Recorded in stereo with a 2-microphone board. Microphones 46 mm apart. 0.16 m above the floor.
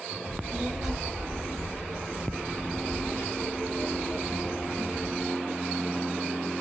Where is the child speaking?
25° right (ahead or behind), 1.5 m; by 5.2 s 55° left (ahead or behind), 3 m.